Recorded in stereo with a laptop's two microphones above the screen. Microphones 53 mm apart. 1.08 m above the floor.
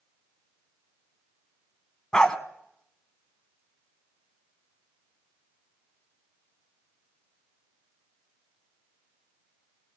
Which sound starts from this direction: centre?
A dog barking, at 2.1 s.